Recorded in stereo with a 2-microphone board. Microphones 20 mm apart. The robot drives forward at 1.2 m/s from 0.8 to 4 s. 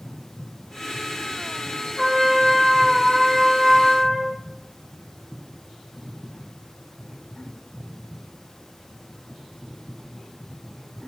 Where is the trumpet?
Centre (ahead or behind), 4.5 m; by 4.4 s 5° right (ahead or behind), 1.9 m.